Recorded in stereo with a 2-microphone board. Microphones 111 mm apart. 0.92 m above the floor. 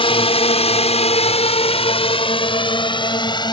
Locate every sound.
0.0 s a drone: 55° left (ahead or behind); by 3.5 s 40° left (ahead or behind)